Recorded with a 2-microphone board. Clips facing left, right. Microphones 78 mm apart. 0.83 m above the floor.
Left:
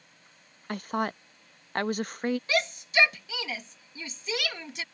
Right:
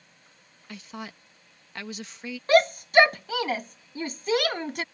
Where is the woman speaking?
50° left (ahead or behind).